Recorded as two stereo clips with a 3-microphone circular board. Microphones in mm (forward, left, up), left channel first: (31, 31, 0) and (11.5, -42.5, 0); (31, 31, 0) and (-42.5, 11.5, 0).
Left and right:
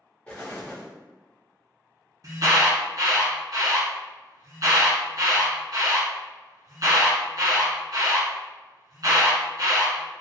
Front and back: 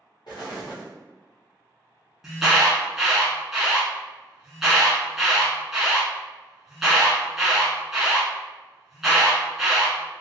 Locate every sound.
0.3 s an explosion: straight ahead, 1.4 m
2.2 s an alarm: 80° right, 1.3 m